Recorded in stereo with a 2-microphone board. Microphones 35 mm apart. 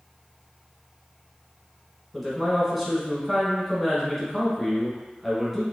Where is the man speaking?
Centre (ahead or behind), 1.4 m.